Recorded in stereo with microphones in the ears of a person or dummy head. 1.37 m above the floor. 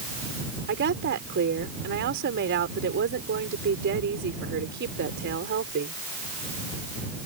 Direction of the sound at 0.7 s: 60° right (ahead or behind).